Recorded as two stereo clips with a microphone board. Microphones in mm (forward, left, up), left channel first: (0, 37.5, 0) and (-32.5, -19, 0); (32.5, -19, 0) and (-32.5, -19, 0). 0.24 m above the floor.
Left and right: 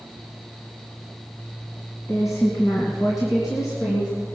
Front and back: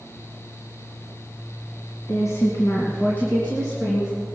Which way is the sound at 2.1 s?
25° left.